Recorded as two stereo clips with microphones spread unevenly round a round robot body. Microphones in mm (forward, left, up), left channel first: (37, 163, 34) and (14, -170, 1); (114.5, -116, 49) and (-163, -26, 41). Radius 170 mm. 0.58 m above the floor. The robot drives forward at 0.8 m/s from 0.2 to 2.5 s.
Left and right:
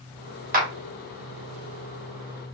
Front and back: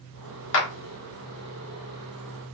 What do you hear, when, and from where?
0.5 s a clap: 45° right, 0.9 m; by 0.7 s 55° right, 0.8 m